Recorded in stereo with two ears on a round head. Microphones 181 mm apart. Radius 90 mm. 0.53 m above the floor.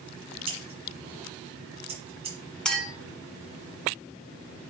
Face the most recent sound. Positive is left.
turn(degrees=5)  # may be behind; listen again after turning